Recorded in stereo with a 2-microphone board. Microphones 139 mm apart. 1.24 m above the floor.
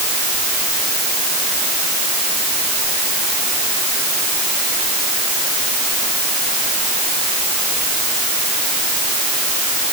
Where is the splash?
I don't hear a splash.